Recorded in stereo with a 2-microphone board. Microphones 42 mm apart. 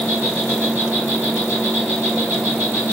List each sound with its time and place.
0.0 s an insect: 45° right (ahead or behind), 1.9 m